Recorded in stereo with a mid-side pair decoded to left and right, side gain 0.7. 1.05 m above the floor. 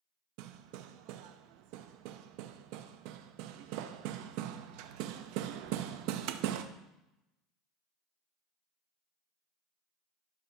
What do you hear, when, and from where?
0.4 s hammering: 70° right, 0.7 m